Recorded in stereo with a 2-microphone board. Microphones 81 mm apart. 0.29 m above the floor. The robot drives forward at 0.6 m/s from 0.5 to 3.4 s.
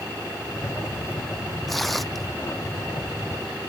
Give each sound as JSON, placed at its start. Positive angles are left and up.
{"t": 1.7, "sound": "tearing paper", "side_deg": 0}